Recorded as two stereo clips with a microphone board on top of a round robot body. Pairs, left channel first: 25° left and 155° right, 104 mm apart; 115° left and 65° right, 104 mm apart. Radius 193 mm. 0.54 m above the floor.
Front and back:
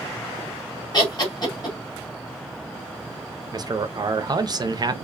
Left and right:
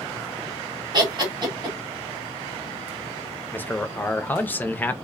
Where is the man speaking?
175° left, 0.7 m.